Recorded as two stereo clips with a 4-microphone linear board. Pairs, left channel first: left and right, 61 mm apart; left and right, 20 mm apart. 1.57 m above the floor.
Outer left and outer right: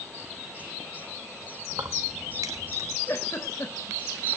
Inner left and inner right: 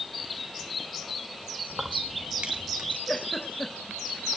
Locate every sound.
1.7 s keys jangling: 55° right (ahead or behind), 1.7 m; by 3.0 s 75° right (ahead or behind), 2 m
3.1 s a giggle: 45° left (ahead or behind), 3 m